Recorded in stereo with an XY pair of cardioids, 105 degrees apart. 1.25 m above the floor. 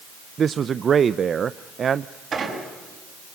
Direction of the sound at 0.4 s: 45° right.